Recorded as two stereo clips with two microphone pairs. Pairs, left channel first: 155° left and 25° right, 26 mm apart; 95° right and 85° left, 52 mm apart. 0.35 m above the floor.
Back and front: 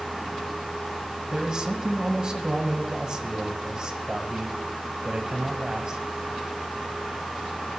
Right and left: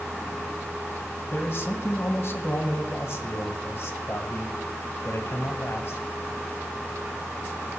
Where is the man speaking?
75° right, 2.5 m.